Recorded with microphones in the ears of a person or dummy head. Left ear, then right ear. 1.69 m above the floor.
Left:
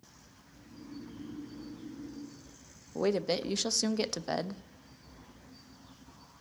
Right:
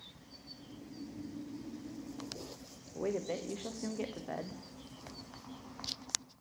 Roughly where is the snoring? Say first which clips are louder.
Left 4 dB; left.